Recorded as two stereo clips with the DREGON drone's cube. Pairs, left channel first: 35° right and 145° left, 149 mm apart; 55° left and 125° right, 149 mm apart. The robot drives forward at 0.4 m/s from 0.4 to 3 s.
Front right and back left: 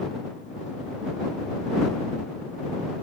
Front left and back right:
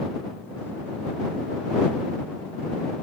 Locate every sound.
Only background noise.